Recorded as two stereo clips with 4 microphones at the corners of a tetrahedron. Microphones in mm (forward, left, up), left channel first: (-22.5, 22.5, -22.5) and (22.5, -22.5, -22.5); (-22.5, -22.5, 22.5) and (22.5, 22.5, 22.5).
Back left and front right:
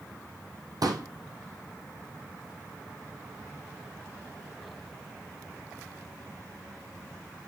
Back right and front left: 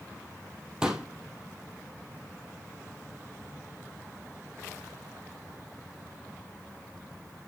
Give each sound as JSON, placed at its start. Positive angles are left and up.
{"t": 0.8, "sound": "a pop", "azimuth_deg": -30, "distance_m": 2.0}